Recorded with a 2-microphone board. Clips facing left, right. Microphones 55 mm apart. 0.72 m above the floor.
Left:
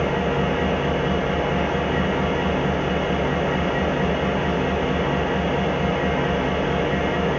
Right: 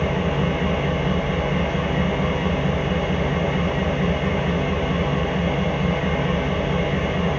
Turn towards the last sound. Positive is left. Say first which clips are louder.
# left 1 dB
turn(degrees=70)  # may be behind; listen again after turning